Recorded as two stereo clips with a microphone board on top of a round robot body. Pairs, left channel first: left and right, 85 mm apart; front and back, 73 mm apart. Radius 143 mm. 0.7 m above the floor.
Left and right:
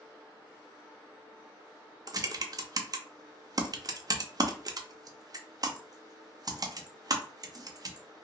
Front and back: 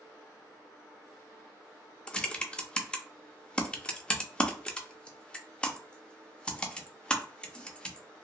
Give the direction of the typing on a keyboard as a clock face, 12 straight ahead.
2 o'clock.